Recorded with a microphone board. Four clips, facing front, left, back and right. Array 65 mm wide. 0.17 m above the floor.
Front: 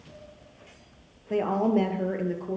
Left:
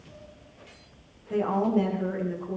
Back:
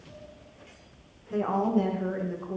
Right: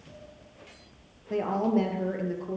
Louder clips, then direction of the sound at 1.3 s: Left 1 dB, front 2 dB; 15° right.